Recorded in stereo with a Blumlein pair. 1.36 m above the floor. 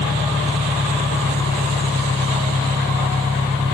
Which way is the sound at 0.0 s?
10° left.